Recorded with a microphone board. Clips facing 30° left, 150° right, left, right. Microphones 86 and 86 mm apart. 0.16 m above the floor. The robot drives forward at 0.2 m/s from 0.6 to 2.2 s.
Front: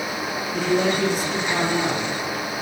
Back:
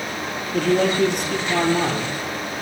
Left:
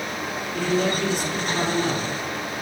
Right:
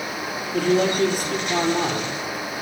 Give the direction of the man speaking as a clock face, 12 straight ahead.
4 o'clock.